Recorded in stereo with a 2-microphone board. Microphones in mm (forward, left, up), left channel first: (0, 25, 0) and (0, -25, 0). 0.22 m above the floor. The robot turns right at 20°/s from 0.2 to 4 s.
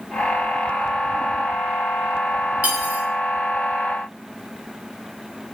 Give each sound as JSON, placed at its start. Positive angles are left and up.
{"t": 2.6, "sound": "cutlery clinking", "side_deg": -30, "distance_m": 0.9}